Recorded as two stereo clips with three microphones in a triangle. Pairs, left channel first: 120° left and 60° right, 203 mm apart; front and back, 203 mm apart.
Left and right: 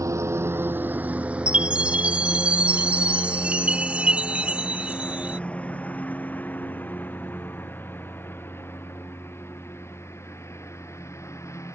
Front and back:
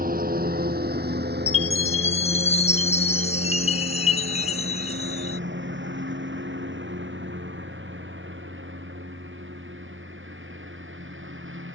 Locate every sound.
0.0 s a lawn mower: 135° right; by 11.8 s 165° right
1.5 s a chime: 20° left